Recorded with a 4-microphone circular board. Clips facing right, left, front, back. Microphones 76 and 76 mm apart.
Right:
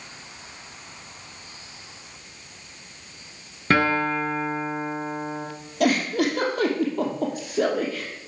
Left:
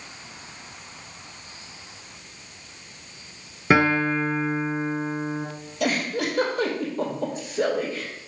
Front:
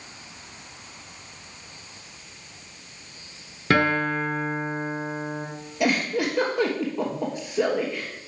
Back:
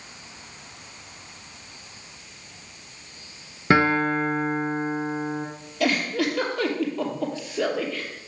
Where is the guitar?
150° left, 1.4 m.